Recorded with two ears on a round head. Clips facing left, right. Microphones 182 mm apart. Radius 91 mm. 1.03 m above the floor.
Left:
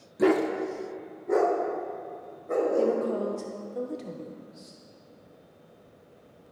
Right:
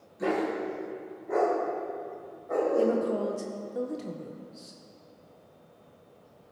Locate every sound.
0.2 s a dog barking: 70° left (ahead or behind), 1.0 m; by 3.0 s 40° left (ahead or behind), 2.5 m
2.8 s a woman speaking: 5° right (ahead or behind), 0.7 m